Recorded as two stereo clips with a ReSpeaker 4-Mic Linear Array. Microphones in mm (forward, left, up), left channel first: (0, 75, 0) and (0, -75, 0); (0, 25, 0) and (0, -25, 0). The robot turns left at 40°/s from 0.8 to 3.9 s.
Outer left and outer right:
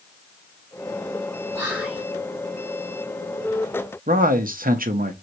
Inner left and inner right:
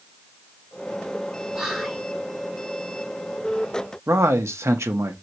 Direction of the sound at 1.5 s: 15° right (ahead or behind).